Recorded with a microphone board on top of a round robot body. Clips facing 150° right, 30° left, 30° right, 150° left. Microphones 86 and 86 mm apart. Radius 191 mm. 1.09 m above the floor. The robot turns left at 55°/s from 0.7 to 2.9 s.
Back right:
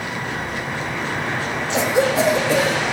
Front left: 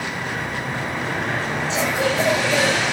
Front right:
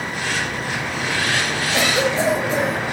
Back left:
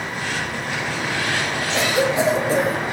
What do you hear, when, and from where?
1.7 s a cough: 110° right, 1.3 m; by 2.8 s 170° right, 1.3 m